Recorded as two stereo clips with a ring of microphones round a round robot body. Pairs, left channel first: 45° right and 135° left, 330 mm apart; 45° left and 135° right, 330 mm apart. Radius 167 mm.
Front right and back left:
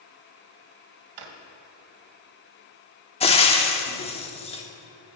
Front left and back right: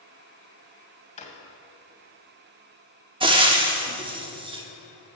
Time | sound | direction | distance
1.2 | a drawer | 115° left | 1.3 m
3.2 | frying | 85° right | 1.2 m